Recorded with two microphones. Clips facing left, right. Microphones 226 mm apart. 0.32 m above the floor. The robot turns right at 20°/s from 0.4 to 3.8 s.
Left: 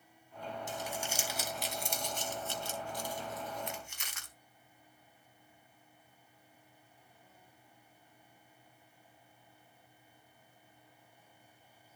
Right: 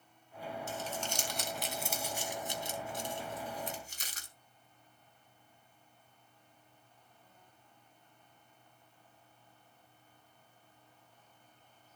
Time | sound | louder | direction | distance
0.7 | crumpling | even | 15° left (ahead or behind) | 3 m